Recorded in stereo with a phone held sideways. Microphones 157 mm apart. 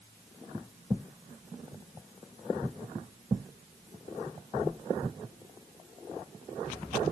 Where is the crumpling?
I don't hear crumpling.